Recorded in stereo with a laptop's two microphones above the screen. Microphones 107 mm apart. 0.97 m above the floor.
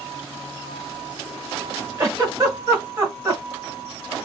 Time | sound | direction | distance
2.0 | a giggle | 30° right (ahead or behind) | 1.2 m